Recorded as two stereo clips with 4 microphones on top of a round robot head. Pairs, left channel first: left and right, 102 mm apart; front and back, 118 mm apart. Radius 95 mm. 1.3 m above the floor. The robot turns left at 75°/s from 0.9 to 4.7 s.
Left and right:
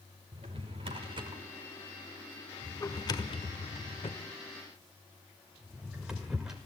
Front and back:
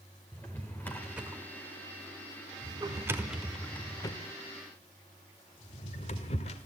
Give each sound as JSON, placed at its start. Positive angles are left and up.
{"t": 0.3, "sound": "a drawer", "azimuth_deg": -80, "distance_m": 1.2}